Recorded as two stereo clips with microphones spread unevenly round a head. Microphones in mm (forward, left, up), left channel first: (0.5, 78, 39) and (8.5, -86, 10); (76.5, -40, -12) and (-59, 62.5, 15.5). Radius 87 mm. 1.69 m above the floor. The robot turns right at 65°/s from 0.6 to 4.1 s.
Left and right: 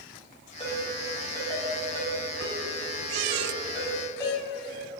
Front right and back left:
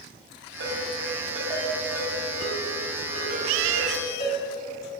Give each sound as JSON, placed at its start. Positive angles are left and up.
{"t": 0.6, "sound": "a ringtone", "azimuth_deg": 150, "distance_m": 4.5}